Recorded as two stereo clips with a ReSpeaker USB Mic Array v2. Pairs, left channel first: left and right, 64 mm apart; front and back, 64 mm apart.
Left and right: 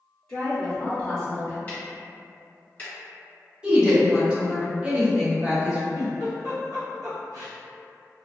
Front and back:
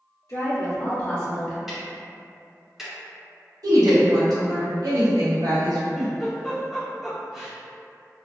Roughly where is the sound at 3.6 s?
Behind.